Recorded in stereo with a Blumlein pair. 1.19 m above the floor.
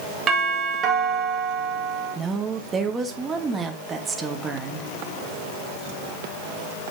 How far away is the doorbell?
About 1.9 m.